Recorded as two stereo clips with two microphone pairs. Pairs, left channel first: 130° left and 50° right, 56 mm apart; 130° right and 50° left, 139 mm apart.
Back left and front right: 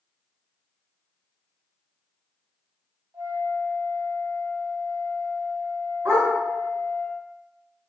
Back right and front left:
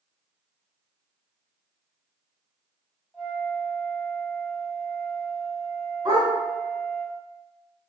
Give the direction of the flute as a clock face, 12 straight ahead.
1 o'clock.